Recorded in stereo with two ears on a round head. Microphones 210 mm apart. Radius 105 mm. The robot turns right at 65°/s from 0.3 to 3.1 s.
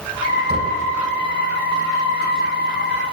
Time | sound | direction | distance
0.5 | knocking | 15° right (ahead or behind) | 5 m